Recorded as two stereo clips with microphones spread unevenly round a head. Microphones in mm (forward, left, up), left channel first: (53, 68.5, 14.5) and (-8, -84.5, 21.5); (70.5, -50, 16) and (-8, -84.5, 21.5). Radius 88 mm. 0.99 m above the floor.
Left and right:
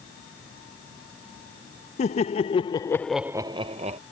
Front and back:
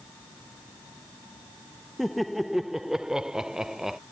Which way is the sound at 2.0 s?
115° left.